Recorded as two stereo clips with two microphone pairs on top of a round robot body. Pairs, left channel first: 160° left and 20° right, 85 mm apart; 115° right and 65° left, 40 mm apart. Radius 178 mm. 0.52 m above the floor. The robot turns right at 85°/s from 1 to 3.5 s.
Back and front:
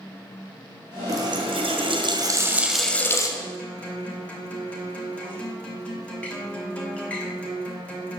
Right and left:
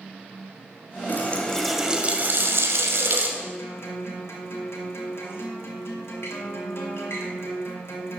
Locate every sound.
1.1 s a running tap: 70° right, 1.3 m; by 3.3 s 115° left, 1.3 m
3.4 s a guitar: 135° right, 2 m; by 8.2 s 125° right, 2 m